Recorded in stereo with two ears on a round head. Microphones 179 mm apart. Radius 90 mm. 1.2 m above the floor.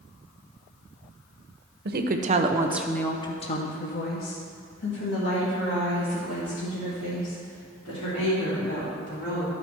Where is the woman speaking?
50° right (ahead or behind), 0.8 m; by 9.5 s 70° left (ahead or behind), 4.5 m.